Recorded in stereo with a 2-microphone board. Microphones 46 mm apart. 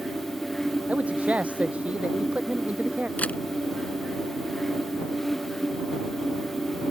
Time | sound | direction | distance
0.9 | a man speaking | 30° right (ahead or behind) | ?
3.2 | a camera shutter | 35° left (ahead or behind) | ?